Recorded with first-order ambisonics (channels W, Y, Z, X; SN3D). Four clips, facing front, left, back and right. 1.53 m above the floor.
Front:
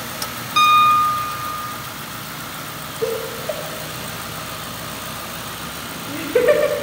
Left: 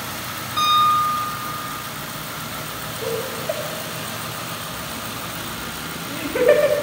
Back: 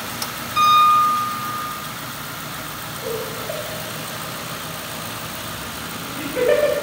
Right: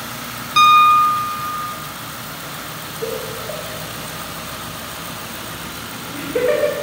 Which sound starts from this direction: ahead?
Laughter, at 3.0 s.